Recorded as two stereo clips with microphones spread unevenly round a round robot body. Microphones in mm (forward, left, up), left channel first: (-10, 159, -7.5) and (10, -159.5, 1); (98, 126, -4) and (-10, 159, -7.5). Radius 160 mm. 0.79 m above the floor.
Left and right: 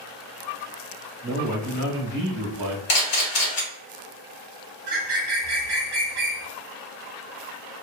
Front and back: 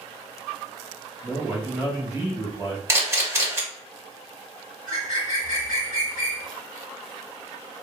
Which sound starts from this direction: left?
A camera shutter, at 2.9 s.